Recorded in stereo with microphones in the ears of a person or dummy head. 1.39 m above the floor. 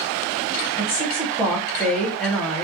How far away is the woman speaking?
About 0.8 m.